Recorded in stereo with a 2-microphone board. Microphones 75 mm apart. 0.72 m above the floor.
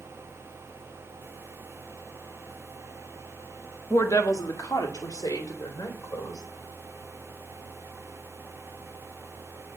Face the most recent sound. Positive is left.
turn(degrees=55)  # may be behind; listen again after turning